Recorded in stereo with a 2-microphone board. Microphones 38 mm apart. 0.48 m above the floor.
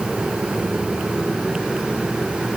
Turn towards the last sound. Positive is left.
No sound to turn to.